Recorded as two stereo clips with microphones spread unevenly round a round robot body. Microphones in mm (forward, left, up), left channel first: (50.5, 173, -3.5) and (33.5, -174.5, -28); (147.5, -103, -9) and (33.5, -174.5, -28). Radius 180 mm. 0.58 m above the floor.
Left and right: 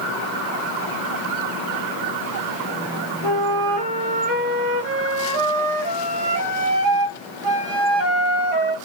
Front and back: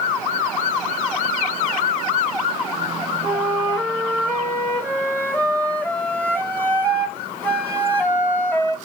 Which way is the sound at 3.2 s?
45° right.